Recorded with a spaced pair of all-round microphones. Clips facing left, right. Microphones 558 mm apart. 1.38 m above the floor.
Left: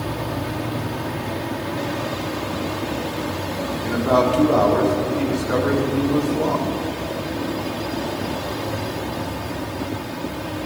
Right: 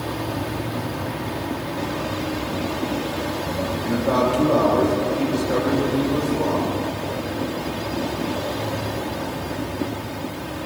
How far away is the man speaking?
About 1.8 m.